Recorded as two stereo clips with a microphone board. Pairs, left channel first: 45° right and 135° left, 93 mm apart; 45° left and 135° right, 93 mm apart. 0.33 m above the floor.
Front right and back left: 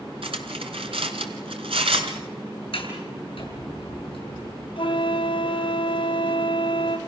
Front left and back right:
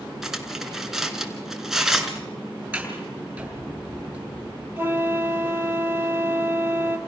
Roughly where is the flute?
Right.